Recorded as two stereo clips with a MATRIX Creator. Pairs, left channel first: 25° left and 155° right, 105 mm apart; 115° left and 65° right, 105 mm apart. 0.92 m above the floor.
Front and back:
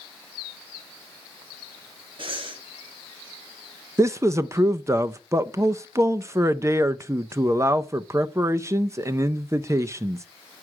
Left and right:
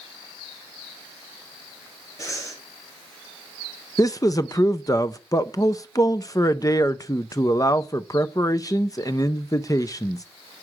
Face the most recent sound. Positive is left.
turn(degrees=150)